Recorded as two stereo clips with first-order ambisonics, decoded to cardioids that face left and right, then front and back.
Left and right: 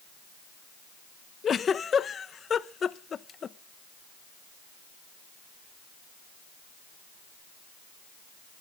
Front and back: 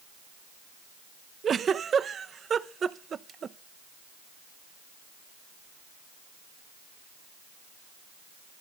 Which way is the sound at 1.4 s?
135° left.